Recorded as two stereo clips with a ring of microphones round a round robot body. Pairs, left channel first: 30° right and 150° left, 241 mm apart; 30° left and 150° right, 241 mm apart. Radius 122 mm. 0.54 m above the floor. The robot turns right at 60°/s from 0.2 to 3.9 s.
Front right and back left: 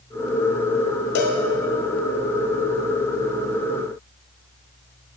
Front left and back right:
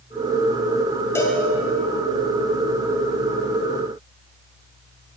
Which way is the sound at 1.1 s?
50° right.